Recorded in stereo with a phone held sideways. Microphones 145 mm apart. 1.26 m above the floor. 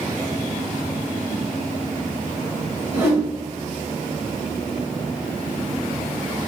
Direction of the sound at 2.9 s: 15° right (ahead or behind).